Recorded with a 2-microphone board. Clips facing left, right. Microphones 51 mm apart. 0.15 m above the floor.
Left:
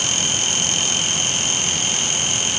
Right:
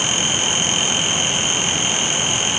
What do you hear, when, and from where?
Only background noise.